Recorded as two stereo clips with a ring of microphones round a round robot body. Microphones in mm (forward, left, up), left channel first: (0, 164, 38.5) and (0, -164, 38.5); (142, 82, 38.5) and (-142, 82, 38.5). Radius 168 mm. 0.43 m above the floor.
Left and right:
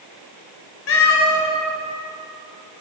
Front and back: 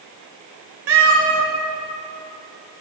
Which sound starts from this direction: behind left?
A cat meowing, at 0.9 s.